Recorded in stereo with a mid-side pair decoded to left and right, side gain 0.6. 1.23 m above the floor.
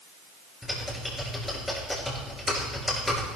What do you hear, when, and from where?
0.6 s typing on a keyboard: 10° left, 6 m